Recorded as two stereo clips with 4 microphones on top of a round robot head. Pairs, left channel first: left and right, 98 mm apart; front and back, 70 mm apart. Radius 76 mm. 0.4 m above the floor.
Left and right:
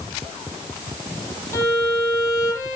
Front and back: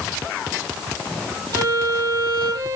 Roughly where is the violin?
Behind left.